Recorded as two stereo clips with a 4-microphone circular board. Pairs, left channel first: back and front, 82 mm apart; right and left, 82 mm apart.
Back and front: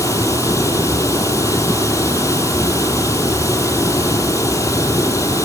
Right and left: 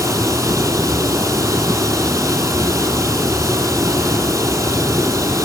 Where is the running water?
140° left, 2.5 m.